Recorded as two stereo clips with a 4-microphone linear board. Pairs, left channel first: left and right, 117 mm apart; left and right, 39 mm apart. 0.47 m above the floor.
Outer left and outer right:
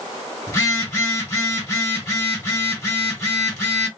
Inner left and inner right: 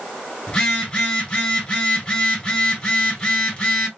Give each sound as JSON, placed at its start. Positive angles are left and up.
{"t": 0.5, "sound": "a phone buzzing", "side_deg": 30, "distance_m": 2.0}